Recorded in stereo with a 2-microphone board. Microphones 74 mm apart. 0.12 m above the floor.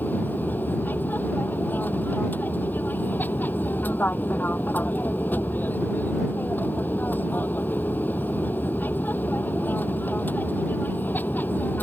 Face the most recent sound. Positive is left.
turn(degrees=25)  # may be behind; listen again after turning